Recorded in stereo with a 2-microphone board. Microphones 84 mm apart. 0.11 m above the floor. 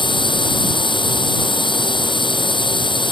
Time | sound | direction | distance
0.0 | a drone | 70° left (ahead or behind) | ?